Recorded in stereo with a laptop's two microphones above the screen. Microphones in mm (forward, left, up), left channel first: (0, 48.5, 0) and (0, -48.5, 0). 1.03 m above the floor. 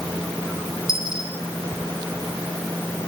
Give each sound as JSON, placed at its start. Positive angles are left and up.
{"t": 0.9, "sound": "a dropped coin", "side_deg": -55, "distance_m": 9.0}